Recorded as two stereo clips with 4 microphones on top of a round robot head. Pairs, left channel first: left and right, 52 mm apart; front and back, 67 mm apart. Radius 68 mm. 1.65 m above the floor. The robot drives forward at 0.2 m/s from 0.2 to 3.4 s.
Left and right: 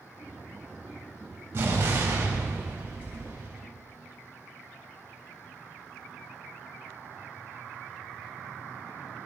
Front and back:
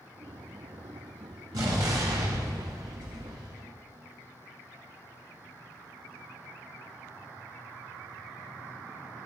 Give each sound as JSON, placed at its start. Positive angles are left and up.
{"t": 1.5, "sound": "an explosion", "azimuth_deg": -145, "distance_m": 2.0}